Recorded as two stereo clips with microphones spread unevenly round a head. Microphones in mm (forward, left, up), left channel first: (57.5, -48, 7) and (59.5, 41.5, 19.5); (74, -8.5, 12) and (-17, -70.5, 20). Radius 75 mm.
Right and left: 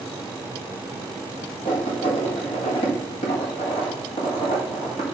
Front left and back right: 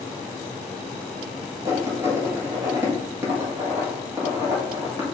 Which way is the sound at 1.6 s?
85° right.